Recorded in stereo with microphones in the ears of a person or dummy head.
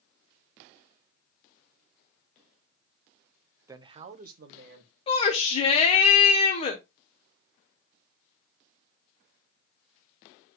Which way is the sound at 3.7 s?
20° right (ahead or behind).